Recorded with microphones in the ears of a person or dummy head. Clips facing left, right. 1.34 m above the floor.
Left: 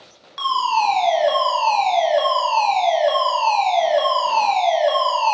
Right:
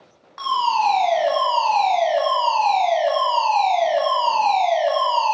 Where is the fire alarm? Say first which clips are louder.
Even; 40° left (ahead or behind), 1.6 m.